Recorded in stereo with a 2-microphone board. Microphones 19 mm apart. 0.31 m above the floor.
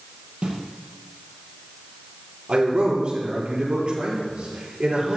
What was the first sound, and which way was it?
A snare drum, 60° right (ahead or behind).